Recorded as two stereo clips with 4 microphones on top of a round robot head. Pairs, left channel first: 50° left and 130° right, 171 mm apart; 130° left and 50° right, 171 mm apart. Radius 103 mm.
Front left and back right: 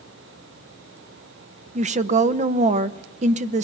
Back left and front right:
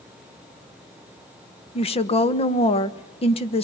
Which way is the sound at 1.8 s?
175° right.